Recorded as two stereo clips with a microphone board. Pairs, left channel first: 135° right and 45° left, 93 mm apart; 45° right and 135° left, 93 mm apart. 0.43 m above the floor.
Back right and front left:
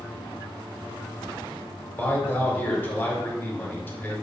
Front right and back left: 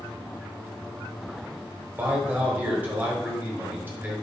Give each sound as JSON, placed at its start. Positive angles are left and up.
{"t": 2.0, "sound": "a man speaking", "azimuth_deg": 180, "distance_m": 0.9}